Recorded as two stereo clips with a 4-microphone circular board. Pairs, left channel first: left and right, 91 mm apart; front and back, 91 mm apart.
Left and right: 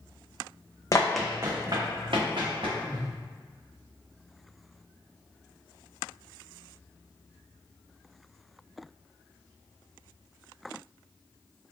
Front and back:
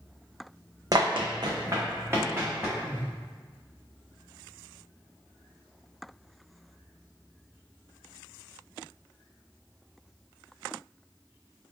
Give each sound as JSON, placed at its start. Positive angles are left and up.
{"t": 0.9, "sound": "running footsteps", "azimuth_deg": 140, "distance_m": 0.6}
{"t": 2.8, "sound": "a whoosh", "azimuth_deg": -65, "distance_m": 1.1}